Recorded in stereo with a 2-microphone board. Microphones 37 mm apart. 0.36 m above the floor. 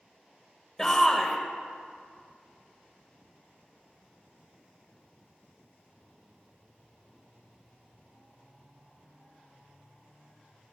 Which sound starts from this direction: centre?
A shout, at 0.8 s.